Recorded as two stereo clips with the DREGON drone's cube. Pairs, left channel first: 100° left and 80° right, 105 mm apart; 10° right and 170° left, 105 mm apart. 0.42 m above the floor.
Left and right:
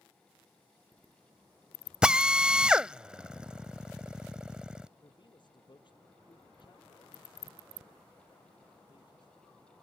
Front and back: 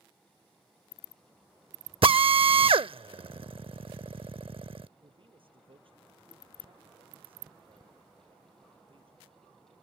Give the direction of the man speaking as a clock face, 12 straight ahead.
7 o'clock.